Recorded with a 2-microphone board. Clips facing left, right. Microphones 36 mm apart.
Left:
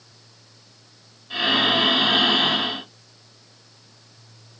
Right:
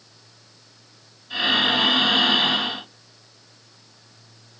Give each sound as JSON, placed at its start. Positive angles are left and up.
{"t": 1.3, "sound": "breathing", "side_deg": 10, "distance_m": 1.4}